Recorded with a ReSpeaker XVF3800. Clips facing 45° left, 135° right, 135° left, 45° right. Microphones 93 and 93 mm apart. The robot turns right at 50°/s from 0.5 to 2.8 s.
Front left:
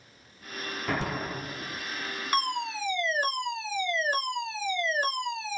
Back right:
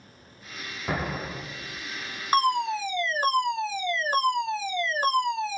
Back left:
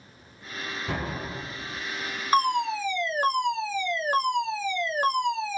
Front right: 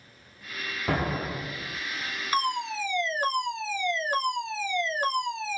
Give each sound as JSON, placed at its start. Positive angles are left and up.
{"t": 0.9, "sound": "an explosion", "azimuth_deg": -60, "distance_m": 0.9}
{"t": 2.3, "sound": "a fire alarm", "azimuth_deg": 180, "distance_m": 1.9}